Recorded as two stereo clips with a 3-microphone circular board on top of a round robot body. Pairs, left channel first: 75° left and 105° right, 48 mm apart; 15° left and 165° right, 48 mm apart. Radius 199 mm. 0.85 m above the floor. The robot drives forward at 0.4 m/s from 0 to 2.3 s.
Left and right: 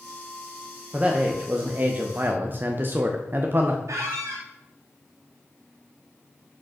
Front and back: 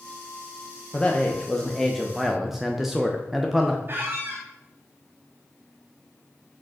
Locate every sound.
0.9 s a man speaking: 50° right, 1.3 m; by 3.8 s 80° right, 1.2 m
3.9 s a squeak: 120° right, 0.6 m